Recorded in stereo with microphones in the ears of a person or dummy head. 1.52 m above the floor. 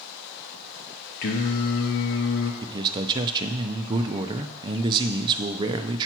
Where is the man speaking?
30° right (ahead or behind), 0.6 m.